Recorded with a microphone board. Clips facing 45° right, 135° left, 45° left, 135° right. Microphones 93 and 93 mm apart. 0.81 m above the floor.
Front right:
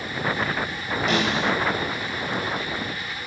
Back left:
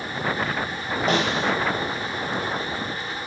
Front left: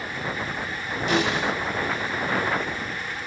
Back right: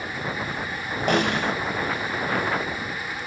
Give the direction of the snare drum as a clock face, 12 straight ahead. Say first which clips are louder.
Back left 1 dB, back right 1 dB; 6 o'clock.